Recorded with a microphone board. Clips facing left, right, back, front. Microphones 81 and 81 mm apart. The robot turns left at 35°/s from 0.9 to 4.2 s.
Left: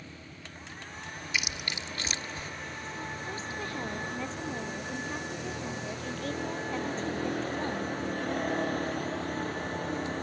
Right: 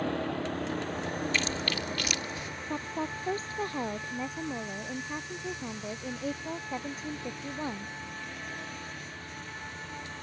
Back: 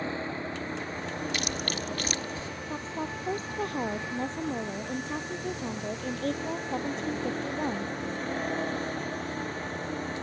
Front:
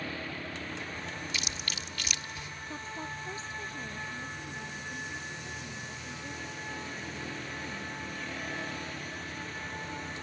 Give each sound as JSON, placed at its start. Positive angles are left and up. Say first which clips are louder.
{"t": 0.0, "sound": "a vehicle", "louder": "right 16 dB, back 6 dB", "azimuth_deg": -115}
{"t": 1.3, "sound": "chewing", "louder": "right 4 dB, back 7 dB", "azimuth_deg": 170}
{"t": 2.7, "sound": "a woman speaking", "louder": "right 8 dB, back 5 dB", "azimuth_deg": -115}